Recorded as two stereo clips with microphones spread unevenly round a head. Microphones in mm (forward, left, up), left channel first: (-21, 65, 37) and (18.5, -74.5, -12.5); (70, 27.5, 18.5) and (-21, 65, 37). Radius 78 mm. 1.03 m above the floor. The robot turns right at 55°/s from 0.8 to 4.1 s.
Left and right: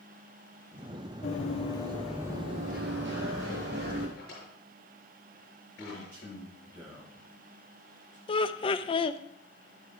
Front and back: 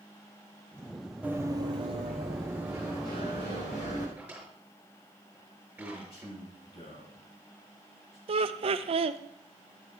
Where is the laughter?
170° left, 0.6 m.